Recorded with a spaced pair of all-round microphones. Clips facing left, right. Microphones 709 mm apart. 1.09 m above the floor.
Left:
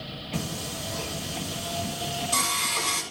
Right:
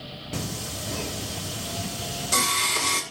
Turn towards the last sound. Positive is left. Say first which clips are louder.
# even
turn(degrees=-85)